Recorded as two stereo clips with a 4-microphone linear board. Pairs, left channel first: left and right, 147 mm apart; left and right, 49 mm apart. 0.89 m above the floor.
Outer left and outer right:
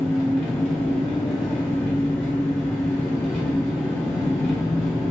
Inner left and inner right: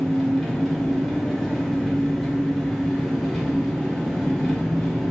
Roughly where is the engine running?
Centre.